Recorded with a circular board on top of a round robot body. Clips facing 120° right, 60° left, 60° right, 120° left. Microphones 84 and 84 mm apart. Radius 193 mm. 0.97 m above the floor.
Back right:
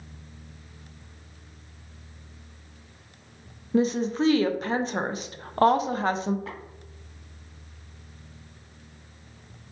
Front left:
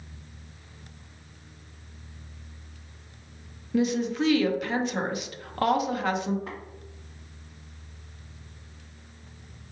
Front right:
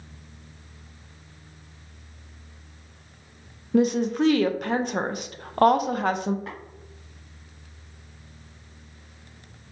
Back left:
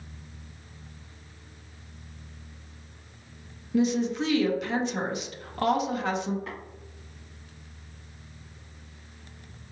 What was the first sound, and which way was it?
A woman speaking, 75° right.